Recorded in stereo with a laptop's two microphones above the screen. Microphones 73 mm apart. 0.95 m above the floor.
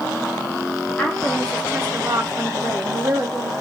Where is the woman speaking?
10° left (ahead or behind), 0.6 m; by 3.5 s 50° right (ahead or behind), 1.4 m.